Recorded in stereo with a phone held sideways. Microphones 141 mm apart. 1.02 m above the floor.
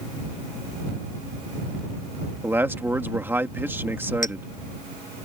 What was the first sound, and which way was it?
A man speaking, 15° right (ahead or behind).